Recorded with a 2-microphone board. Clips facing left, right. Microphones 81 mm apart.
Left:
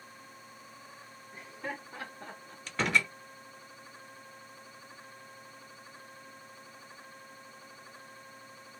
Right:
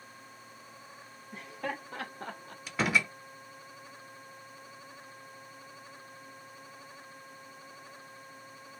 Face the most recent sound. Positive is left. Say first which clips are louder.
# even
turn(degrees=-5)  # may be behind; listen again after turning